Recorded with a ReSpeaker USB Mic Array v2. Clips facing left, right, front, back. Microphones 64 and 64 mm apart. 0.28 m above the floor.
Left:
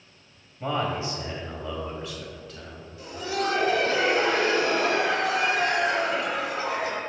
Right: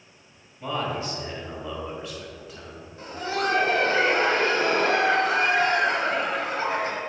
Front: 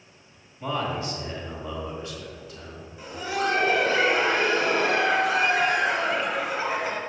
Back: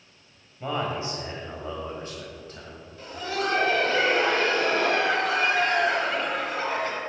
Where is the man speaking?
120° left, 1.7 m; by 2.9 s 160° right, 2 m.